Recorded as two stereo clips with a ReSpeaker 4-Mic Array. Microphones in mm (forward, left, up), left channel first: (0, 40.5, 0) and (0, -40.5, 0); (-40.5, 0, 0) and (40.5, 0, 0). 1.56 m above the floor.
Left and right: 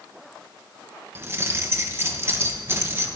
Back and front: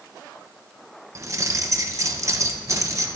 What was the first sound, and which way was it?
Keys jangling, 40° right.